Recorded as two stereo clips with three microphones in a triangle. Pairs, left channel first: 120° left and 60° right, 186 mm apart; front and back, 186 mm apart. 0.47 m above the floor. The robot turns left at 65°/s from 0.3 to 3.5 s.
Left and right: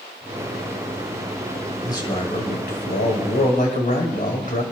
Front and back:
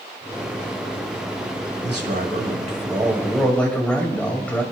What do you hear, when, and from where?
1.8 s a man speaking: 170° right, 1.9 m; by 4.6 s 85° left, 1.9 m